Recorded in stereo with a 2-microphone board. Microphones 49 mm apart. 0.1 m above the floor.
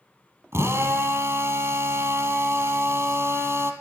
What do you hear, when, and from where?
0.5 s a drill: 60° right (ahead or behind), 2 m